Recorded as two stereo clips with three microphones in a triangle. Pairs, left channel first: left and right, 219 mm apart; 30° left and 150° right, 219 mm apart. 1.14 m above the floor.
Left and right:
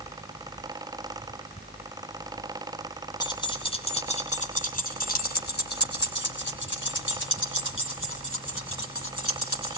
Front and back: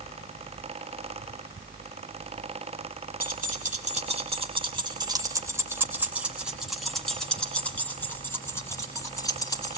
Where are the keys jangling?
160° left, 3 m; by 9.8 s 100° left, 5.5 m.